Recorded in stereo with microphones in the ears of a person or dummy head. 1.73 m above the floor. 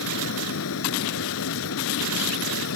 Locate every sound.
0.0 s a fan: 80° left